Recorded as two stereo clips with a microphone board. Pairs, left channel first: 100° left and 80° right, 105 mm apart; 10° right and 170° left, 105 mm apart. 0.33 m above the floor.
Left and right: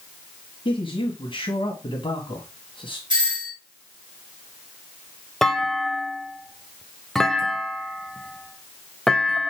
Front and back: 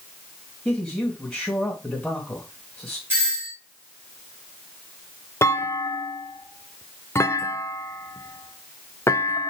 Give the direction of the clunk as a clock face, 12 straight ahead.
11 o'clock.